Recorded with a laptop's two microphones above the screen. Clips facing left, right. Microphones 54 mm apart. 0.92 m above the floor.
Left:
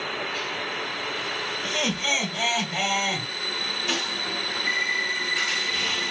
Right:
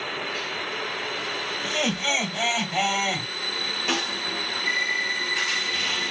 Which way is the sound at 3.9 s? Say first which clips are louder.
Right 2 dB; 45° right (ahead or behind).